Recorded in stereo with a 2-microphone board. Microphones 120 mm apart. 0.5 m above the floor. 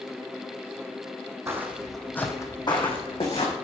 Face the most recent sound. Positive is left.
turn(degrees=60)  # may be behind; listen again after turning